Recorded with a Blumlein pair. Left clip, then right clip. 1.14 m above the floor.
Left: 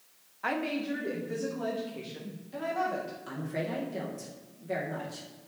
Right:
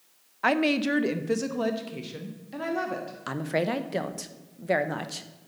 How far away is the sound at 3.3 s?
About 0.9 m.